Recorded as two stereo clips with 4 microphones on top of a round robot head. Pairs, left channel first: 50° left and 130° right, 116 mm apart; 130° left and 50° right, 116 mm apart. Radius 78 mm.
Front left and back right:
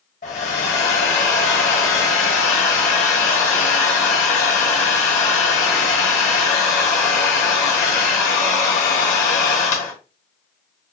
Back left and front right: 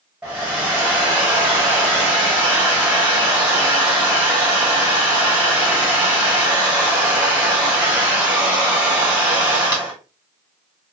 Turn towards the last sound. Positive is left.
turn(degrees=30)